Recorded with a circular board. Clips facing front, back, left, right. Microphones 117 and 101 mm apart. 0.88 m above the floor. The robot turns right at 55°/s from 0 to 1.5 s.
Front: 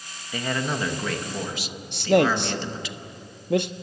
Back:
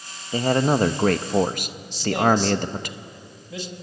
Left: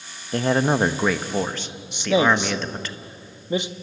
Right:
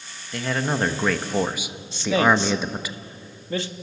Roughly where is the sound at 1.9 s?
Ahead.